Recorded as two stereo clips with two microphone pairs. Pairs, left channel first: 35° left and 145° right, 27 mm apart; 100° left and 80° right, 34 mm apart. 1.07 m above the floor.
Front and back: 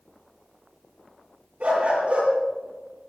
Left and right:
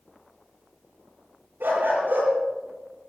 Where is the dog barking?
105° right, 10 m.